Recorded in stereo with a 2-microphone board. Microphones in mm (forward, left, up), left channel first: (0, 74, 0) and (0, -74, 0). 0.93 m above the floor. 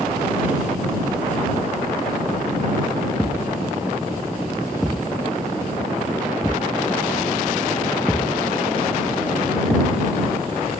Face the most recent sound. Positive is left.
turn(degrees=5)  # may be behind; listen again after turning